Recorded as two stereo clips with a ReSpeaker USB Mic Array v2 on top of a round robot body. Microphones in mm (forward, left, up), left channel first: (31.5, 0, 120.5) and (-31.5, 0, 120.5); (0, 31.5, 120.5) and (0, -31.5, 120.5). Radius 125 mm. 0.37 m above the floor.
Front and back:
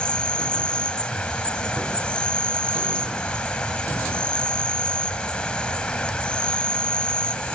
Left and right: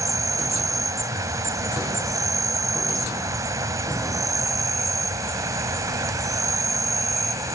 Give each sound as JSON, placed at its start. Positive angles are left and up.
{"t": 0.0, "sound": "an insect", "azimuth_deg": -75}